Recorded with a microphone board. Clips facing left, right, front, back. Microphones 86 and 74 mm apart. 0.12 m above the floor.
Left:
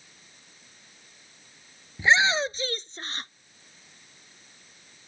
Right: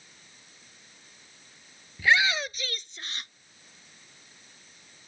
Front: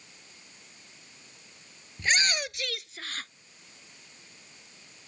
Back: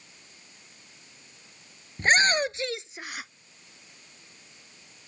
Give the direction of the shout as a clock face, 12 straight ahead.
7 o'clock.